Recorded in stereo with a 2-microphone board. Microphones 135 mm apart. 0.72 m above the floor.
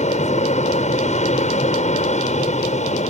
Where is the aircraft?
55° left (ahead or behind).